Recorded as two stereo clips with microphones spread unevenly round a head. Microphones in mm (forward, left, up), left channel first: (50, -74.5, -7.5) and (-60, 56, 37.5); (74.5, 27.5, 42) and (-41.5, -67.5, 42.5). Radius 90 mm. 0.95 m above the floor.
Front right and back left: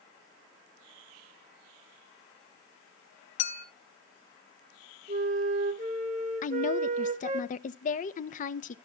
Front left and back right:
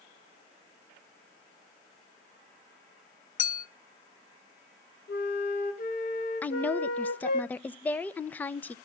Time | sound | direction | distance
3.4 | a clink | straight ahead | 1.7 m
5.1 | a flute | 80° left | 2 m
6.4 | a woman speaking | 40° right | 0.8 m